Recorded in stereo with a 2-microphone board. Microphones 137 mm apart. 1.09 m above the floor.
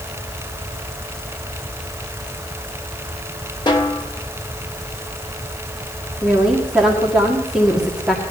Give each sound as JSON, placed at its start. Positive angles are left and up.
{"t": 3.7, "sound": "a snare drum", "side_deg": 35, "distance_m": 2.0}
{"t": 6.2, "sound": "a woman speaking", "side_deg": -5, "distance_m": 1.9}